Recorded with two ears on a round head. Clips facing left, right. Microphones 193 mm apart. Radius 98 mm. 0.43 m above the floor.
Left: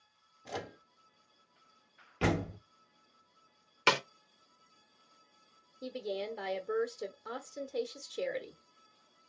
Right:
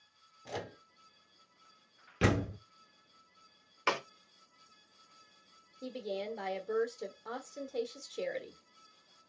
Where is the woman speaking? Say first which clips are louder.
Left 1 dB; 5° left (ahead or behind), 1.0 m.